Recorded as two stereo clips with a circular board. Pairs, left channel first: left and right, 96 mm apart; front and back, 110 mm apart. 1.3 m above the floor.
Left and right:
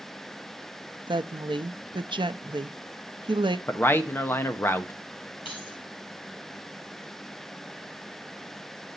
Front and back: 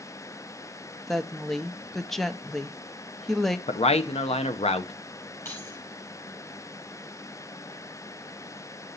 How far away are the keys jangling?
About 5.5 m.